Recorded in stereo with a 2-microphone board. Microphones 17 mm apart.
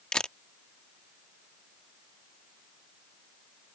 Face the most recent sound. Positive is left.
turn(degrees=55)  # may be behind; listen again after turning